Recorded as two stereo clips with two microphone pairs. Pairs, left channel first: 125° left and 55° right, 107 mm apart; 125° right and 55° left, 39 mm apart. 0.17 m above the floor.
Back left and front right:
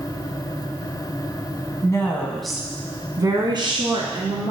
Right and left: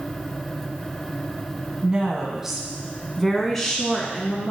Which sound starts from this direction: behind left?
A woman speaking, at 1.8 s.